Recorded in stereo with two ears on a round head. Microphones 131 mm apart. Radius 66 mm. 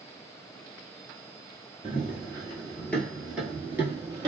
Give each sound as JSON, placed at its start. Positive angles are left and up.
{"t": 1.8, "sound": "running footsteps", "side_deg": 35, "distance_m": 1.2}